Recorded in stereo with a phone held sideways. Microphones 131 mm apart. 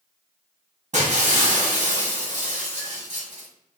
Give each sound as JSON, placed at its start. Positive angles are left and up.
{"t": 0.9, "sound": "breaking glass", "side_deg": -60, "distance_m": 1.6}